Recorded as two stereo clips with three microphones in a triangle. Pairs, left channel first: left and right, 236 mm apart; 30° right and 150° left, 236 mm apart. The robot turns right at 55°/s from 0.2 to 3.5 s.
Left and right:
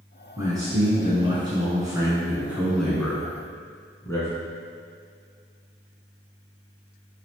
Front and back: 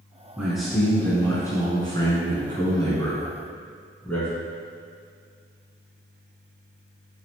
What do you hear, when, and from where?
0.4 s a man speaking: 135° right, 1.0 m; by 4.3 s 35° left, 1.0 m